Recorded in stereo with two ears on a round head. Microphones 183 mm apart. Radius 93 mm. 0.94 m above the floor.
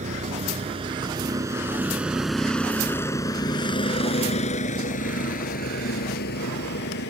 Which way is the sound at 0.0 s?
40° right (ahead or behind).